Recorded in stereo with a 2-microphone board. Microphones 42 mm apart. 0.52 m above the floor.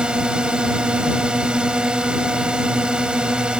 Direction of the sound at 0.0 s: 20° right (ahead or behind).